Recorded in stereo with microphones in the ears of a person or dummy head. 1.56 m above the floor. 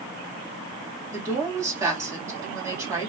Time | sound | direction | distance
1.1 | a woman speaking | 15° right (ahead or behind) | 2.5 m